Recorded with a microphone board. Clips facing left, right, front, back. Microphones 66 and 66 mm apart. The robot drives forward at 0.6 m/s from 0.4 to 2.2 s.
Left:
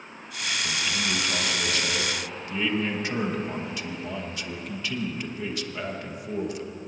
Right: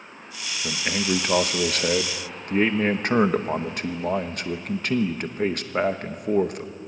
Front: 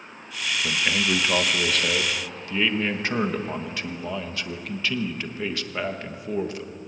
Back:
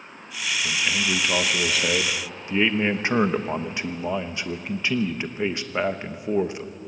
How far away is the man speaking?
About 1.1 m.